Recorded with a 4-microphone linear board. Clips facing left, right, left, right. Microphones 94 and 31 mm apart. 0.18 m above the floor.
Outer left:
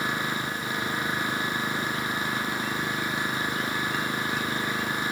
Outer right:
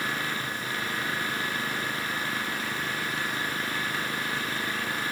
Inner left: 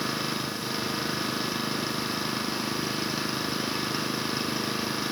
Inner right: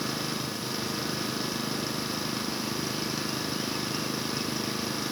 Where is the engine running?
20° left (ahead or behind).